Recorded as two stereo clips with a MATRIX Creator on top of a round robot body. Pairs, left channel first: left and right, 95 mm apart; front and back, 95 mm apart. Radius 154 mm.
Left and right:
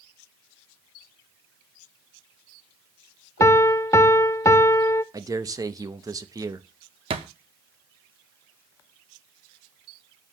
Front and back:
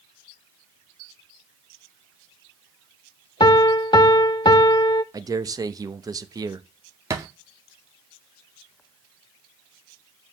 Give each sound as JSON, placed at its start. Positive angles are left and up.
{"t": 3.4, "sound": "a piano", "azimuth_deg": 35, "distance_m": 0.6}
{"t": 5.1, "sound": "a man speaking", "azimuth_deg": -135, "distance_m": 0.8}
{"t": 7.1, "sound": "a thud", "azimuth_deg": -120, "distance_m": 0.5}